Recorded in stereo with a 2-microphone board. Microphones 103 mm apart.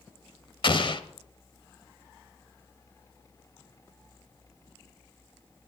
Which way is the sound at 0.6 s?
50° left (ahead or behind).